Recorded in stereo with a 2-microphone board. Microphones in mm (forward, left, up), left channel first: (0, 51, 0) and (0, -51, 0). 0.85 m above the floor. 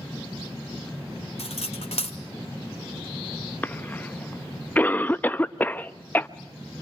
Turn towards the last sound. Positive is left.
turn(degrees=15)  # may be behind; listen again after turning